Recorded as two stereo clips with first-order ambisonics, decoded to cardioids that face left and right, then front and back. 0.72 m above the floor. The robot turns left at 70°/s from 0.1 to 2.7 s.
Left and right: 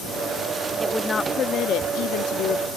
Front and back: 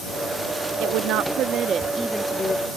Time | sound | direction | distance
0.8 | a woman speaking | 175° right | ?